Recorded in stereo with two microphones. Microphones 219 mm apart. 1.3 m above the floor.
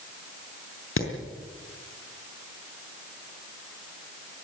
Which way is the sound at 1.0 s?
75° left (ahead or behind).